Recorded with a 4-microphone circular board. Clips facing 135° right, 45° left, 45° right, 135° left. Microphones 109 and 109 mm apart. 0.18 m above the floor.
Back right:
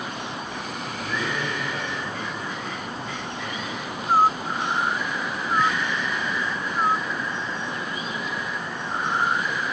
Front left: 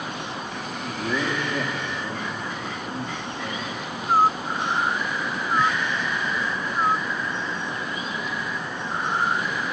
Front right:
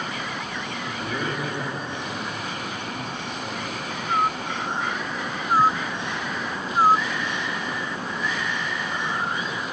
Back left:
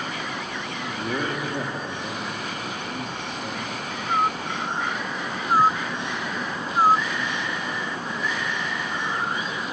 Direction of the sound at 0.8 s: 90° left.